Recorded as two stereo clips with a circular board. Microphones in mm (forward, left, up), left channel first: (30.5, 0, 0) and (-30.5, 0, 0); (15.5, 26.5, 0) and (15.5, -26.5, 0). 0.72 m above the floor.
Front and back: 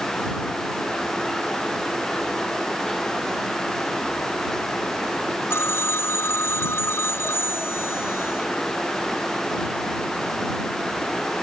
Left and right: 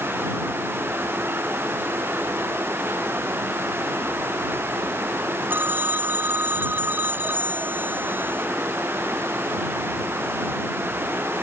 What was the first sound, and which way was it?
A phone ringing, 40° right.